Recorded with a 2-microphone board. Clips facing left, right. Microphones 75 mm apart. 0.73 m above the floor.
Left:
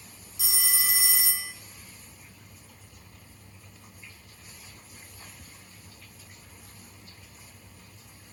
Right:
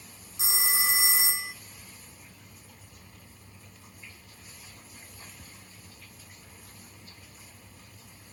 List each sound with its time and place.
0.4 s a phone ringing: 30° right (ahead or behind), 0.8 m